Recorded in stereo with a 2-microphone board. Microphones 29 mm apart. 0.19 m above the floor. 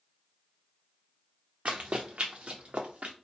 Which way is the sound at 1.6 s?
85° right.